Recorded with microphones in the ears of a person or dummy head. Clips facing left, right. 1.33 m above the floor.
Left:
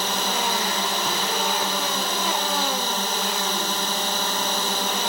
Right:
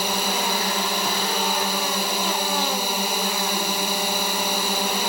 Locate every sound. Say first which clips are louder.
0.0 s a drone: right 1 dB; 10° right (ahead or behind)